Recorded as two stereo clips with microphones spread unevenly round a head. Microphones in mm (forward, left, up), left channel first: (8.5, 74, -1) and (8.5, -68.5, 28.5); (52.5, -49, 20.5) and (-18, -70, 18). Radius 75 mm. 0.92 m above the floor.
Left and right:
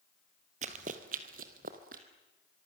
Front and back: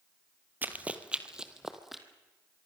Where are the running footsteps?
100° right, 1.6 m; by 2.0 s 75° right, 2.5 m.